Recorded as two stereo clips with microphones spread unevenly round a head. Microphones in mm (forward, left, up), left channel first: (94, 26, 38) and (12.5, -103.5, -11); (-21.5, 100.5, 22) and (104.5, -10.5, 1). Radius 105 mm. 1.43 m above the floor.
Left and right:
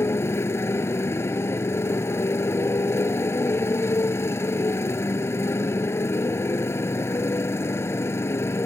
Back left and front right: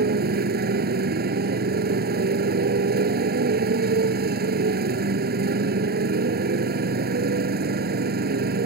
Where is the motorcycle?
15° right.